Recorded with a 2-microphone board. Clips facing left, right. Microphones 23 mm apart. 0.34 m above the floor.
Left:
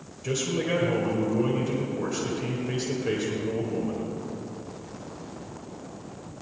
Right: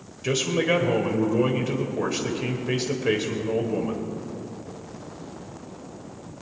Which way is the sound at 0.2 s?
30° right (ahead or behind).